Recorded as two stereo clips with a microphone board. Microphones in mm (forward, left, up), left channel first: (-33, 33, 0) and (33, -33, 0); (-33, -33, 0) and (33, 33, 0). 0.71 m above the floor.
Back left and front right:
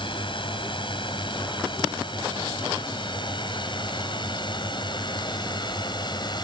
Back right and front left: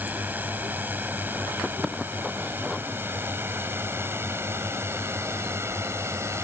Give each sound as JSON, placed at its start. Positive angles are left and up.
{"t": 0.0, "sound": "a drone", "azimuth_deg": 115}